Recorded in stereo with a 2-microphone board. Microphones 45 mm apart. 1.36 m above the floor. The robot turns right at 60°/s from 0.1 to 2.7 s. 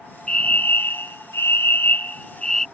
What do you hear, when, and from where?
0.3 s a fire alarm: 30° left; by 2.6 s 175° left